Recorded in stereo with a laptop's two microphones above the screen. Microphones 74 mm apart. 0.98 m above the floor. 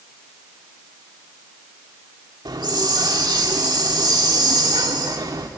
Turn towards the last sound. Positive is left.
turn(degrees=-70)  # may be behind; listen again after turning